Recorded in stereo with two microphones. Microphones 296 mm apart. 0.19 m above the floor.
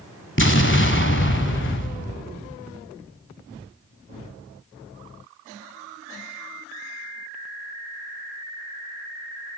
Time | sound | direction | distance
0.4 | an explosion | 40° left (ahead or behind) | 1.7 m